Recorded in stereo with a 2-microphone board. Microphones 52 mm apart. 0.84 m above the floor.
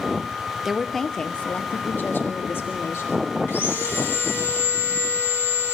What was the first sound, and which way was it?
A woman speaking, 5° right (ahead or behind).